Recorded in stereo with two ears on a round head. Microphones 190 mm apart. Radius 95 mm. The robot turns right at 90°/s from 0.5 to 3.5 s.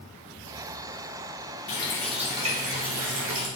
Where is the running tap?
140° left, 2.5 m; by 3.5 s 60° right, 2.5 m.